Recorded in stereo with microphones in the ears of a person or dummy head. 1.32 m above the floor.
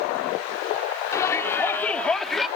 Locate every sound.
1.1 s a shout: 20° left (ahead or behind); by 2.5 s centre (ahead or behind)